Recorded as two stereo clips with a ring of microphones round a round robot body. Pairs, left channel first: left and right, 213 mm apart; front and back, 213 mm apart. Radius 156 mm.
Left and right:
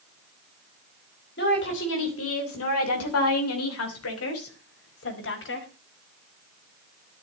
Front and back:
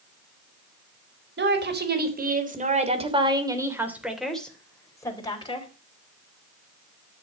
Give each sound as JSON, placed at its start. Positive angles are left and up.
{"t": 1.4, "sound": "a woman speaking", "azimuth_deg": 145, "distance_m": 4.0}